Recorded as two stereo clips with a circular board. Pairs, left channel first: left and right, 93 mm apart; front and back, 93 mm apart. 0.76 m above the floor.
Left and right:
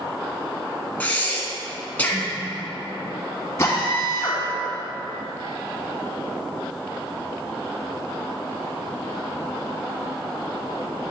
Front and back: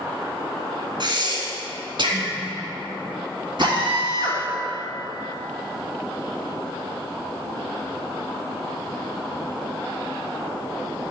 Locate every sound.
1.0 s breathing: 160° left, 1.3 m
3.6 s a drill: 150° left, 2 m